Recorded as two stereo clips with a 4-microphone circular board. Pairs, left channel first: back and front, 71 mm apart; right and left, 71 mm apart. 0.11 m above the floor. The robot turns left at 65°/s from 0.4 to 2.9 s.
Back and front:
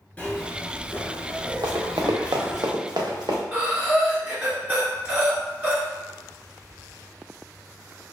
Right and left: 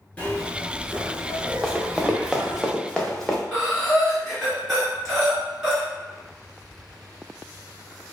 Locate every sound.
0.2 s a zipper: 135° right, 0.8 m; by 2.6 s 80° left, 0.8 m
1.6 s running footsteps: 10° left, 0.8 m; by 3.4 s straight ahead, 1.1 m
3.5 s breathing: 15° left, 1.6 m